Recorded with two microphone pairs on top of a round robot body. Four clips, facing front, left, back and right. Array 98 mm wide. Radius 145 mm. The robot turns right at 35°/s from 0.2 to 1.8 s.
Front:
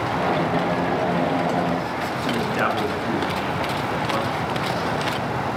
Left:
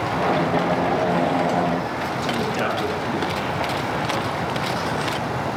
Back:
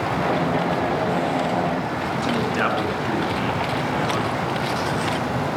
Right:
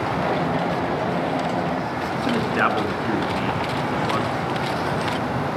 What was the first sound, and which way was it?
A man speaking, 80° right.